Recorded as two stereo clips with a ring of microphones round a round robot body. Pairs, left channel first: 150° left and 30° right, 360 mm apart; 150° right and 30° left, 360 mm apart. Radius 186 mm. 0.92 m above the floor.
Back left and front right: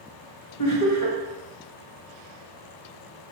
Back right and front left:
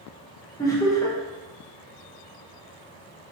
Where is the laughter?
130° left, 1.0 m.